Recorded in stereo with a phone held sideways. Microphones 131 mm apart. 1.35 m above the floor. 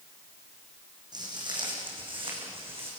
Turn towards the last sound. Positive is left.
turn(degrees=-45)  # may be behind; listen again after turning